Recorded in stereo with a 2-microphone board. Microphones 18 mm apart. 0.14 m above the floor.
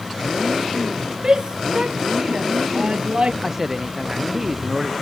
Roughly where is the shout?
Right.